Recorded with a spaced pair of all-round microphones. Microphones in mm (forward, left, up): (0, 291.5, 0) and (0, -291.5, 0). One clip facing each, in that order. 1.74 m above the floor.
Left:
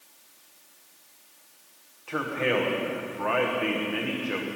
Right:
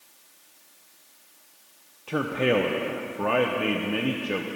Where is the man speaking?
55° right (ahead or behind), 1.0 m.